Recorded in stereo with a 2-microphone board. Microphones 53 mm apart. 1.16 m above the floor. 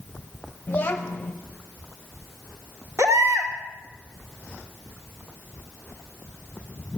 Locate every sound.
0.7 s a child speaking: 35° left (ahead or behind), 0.8 m
3.0 s a baby crying: 50° right (ahead or behind), 2.0 m